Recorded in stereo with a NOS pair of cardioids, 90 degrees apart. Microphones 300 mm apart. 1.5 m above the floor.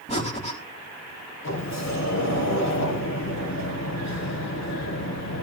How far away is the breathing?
About 4.5 m.